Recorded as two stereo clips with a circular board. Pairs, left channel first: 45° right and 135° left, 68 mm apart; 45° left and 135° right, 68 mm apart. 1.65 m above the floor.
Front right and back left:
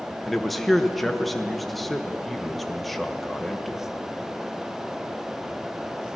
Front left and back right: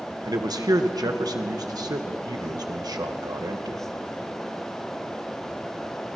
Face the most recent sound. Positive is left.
turn(degrees=-135)